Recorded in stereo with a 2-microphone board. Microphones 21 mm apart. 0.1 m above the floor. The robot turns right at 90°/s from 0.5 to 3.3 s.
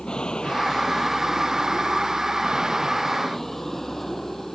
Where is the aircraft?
45° left (ahead or behind); by 4.6 s 20° left (ahead or behind).